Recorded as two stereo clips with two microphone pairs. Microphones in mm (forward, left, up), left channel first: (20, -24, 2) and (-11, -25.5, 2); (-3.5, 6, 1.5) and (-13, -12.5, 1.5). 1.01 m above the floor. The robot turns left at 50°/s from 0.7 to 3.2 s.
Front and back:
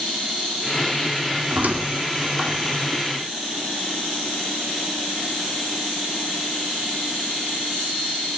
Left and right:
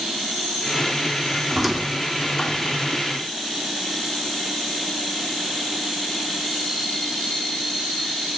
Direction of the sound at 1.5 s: 165° left.